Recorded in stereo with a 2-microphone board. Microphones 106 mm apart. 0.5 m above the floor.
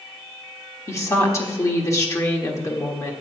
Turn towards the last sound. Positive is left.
turn(degrees=30)  # may be behind; listen again after turning